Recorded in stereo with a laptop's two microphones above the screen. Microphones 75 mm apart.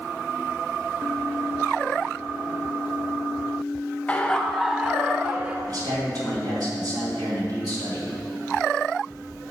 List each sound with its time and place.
4.1 s laughter: 20° left (ahead or behind), 0.7 m; by 5.6 s 25° right (ahead or behind), 1.3 m
5.7 s a man speaking: 55° right (ahead or behind), 2.5 m